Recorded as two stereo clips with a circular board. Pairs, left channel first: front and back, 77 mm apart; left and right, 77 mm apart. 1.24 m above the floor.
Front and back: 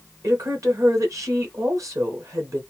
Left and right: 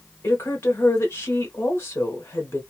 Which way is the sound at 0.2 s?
140° left.